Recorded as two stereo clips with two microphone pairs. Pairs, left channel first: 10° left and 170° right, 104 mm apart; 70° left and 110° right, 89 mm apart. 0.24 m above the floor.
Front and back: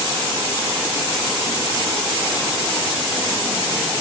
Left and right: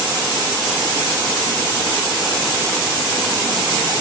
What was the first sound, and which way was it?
Only background noise.